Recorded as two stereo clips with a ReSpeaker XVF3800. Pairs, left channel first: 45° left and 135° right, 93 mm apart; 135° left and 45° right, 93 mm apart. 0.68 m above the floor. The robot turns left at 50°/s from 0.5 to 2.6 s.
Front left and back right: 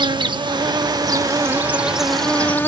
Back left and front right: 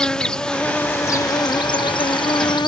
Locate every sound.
0.0 s an insect: 145° right; by 2.7 s 110° left